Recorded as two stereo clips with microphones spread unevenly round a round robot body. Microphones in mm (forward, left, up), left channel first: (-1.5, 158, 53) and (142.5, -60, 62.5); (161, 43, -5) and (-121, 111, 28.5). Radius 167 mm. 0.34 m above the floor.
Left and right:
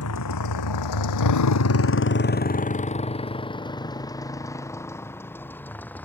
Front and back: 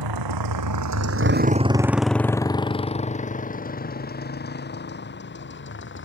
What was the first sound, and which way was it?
A motorcycle, 170° left.